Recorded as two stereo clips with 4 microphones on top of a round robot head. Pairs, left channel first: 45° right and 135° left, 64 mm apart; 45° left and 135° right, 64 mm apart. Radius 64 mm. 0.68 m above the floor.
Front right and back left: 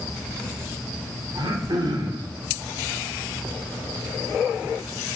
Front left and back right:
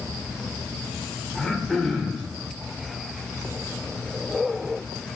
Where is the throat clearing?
125° left, 2.5 m.